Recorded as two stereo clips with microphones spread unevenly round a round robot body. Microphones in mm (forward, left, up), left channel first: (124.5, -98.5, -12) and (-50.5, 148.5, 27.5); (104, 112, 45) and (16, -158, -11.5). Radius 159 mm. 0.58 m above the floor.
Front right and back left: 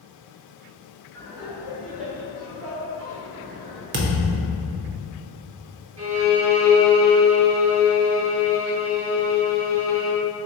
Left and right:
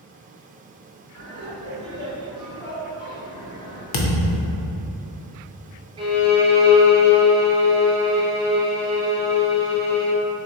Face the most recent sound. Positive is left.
turn(degrees=175)